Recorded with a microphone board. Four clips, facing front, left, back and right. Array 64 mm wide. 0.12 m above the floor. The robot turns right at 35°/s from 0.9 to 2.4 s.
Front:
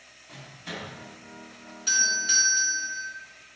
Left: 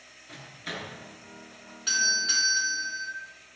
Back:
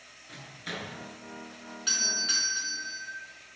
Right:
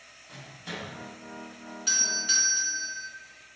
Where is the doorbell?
145° left, 1.9 m; by 3.1 s 165° left, 1.9 m.